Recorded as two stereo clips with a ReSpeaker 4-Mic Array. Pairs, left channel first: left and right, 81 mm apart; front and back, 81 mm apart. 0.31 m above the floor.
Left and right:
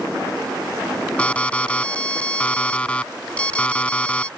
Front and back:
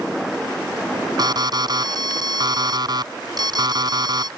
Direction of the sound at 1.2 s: 165° left.